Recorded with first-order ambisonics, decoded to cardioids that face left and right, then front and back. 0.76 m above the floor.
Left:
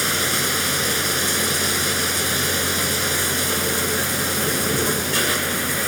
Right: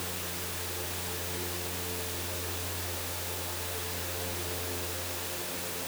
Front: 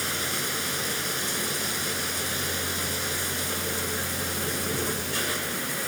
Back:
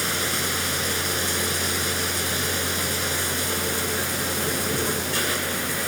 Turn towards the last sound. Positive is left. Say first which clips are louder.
# left 17 dB, back 4 dB
turn(degrees=105)